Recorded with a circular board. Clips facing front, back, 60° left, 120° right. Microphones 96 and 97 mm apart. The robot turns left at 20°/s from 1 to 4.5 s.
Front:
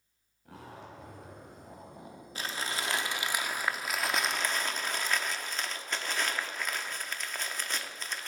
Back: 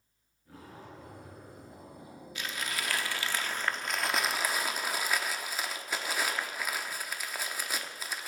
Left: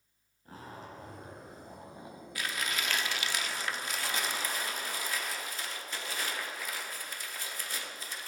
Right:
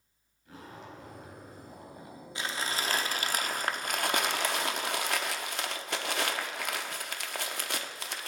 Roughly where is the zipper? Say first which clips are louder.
Front 2 dB, even; ahead.